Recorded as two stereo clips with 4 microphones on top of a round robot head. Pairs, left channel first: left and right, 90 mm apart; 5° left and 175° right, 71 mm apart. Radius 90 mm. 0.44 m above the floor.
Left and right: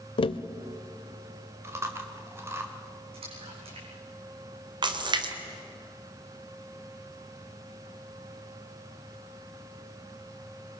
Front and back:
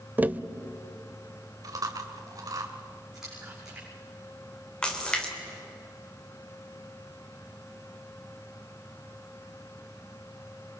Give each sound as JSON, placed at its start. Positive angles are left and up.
{"t": 0.2, "sound": "tapping", "azimuth_deg": 115, "distance_m": 0.7}
{"t": 1.6, "sound": "chewing", "azimuth_deg": -150, "distance_m": 2.0}
{"t": 3.1, "sound": "a splash", "azimuth_deg": -90, "distance_m": 6.5}
{"t": 4.8, "sound": "a splash", "azimuth_deg": -75, "distance_m": 2.5}